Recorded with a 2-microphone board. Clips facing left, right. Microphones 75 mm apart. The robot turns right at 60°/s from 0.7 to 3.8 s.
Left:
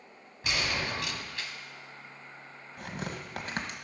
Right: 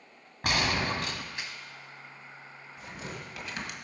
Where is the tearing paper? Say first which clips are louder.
Left 4 dB; 85° left, 1.5 m; by 3.7 s 40° left (ahead or behind), 1.5 m.